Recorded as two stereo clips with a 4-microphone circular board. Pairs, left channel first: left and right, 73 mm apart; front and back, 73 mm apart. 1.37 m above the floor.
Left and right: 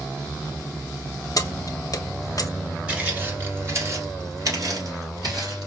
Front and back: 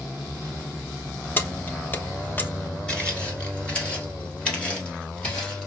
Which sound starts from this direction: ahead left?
Keys jangling, at 1.4 s.